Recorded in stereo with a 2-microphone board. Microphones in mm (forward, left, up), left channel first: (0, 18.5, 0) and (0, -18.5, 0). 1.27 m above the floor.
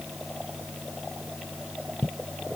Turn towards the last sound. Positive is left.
No sound to turn to.